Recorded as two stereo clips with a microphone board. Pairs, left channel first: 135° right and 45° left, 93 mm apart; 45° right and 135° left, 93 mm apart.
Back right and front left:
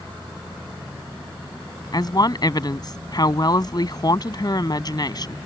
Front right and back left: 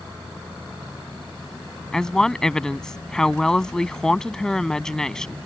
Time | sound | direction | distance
1.9 | a woman speaking | 125° right | ?